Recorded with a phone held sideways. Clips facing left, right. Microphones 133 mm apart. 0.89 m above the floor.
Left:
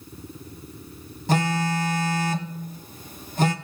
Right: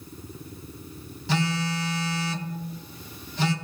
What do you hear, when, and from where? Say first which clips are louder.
1.3 s a phone buzzing: left 4 dB; 50° left (ahead or behind), 0.7 m